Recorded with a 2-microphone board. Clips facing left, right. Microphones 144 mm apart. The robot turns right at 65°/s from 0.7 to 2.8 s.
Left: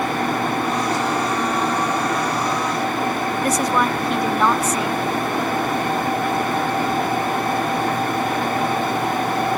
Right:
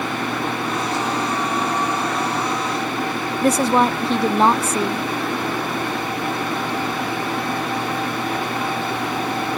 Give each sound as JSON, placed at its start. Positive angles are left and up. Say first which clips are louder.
{"t": 3.4, "sound": "a woman speaking", "louder": "right 5 dB", "side_deg": -25}